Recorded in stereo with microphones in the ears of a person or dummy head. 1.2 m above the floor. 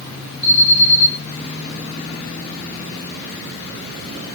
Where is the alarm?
60° left (ahead or behind), 6 m.